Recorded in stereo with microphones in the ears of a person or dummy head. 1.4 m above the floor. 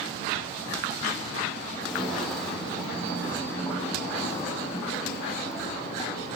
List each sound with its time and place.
1.8 s footsteps: centre (ahead or behind), 3.5 m; by 6.4 s 20° left (ahead or behind), 7 m